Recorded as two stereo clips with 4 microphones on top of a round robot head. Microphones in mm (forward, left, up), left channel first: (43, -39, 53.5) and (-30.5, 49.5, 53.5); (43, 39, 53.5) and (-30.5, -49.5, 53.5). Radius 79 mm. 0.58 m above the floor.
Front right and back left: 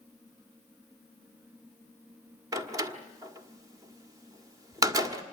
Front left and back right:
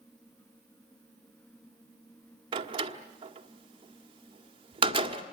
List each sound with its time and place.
2.5 s a door slam: 170° right, 1.6 m